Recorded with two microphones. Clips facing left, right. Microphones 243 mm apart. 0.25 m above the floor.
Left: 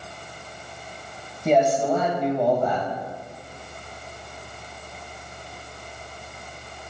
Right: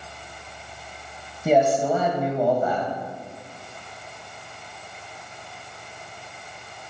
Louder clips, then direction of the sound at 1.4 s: Even; 5° right (ahead or behind).